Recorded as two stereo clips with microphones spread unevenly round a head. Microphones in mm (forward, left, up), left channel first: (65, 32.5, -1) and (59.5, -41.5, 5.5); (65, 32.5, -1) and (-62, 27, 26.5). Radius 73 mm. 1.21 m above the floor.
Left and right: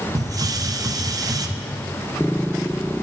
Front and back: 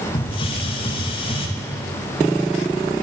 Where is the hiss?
55° right, 0.9 m.